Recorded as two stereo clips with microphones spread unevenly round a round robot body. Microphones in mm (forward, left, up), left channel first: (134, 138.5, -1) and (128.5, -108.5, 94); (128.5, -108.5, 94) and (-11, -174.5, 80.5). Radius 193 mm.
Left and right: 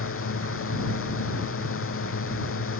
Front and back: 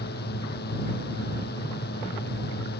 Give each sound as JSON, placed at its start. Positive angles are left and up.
{"t": 0.0, "sound": "a drone", "azimuth_deg": 55}